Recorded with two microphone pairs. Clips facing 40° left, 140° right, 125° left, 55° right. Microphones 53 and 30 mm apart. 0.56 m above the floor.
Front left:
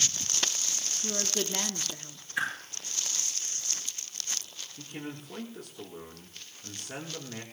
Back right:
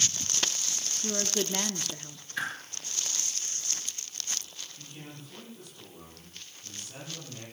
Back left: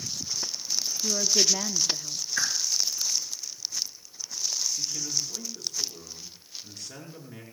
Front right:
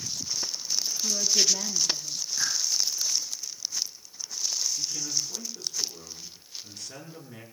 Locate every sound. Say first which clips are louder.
1.0 s a woman speaking: back right 2 dB, back left 1 dB; 140° left, 0.7 m
2.4 s a whoosh: front left 3 dB, back left 2 dB; 115° left, 7.5 m
4.8 s a man speaking: front left 10 dB, even; 40° left, 6 m